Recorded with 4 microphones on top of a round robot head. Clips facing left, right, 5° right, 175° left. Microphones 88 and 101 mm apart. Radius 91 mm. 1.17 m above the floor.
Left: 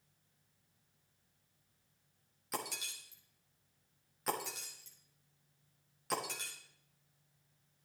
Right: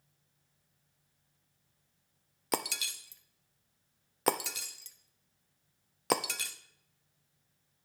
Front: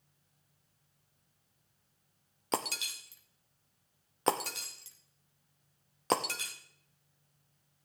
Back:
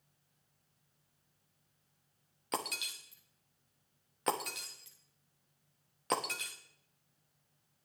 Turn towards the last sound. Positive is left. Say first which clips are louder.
# right 7 dB, front 4 dB
turn(degrees=-75)